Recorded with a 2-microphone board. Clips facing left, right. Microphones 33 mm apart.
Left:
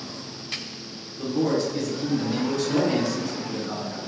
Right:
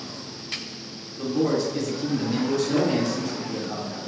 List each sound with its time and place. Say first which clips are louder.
1.2 s a man speaking: even; centre (ahead or behind), 1.2 m; by 4.1 s 60° left (ahead or behind), 2 m